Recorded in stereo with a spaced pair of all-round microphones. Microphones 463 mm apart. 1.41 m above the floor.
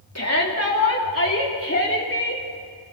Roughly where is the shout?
Left.